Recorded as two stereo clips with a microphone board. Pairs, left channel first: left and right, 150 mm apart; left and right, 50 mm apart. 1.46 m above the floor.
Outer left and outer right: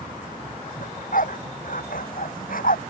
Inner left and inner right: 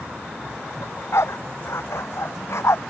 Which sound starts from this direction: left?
A dog barking, at 0.8 s.